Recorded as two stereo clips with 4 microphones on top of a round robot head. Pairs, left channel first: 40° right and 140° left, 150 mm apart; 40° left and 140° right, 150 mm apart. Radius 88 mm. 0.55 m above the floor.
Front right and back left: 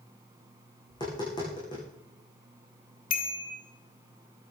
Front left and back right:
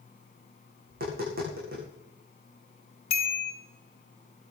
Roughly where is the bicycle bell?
Ahead.